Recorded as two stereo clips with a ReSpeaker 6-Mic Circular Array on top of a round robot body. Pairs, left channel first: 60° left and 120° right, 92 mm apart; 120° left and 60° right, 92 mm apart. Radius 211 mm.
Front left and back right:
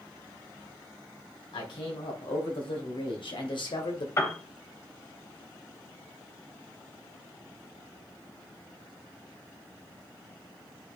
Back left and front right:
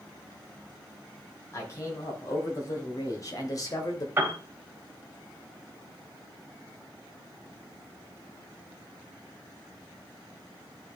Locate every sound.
1.5 s a man speaking: 65° left, 3 m; by 4.1 s 80° left, 2.0 m
4.2 s a piano: 5° left, 2 m